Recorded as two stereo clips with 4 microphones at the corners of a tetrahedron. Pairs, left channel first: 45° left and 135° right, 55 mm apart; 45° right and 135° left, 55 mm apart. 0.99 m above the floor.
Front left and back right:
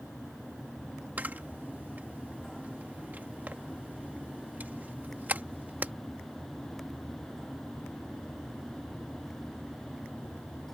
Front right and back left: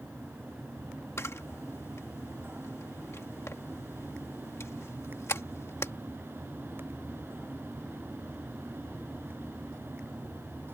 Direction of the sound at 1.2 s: 80° right.